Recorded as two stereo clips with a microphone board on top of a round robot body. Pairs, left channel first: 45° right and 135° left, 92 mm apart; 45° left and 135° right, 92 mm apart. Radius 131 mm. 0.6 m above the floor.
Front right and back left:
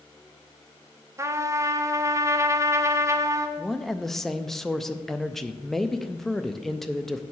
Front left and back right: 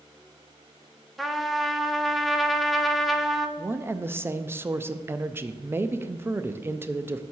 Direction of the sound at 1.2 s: 135° left.